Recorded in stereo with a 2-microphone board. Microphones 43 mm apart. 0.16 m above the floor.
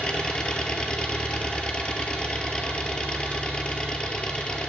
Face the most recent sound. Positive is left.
turn(degrees=20)  # may be behind; listen again after turning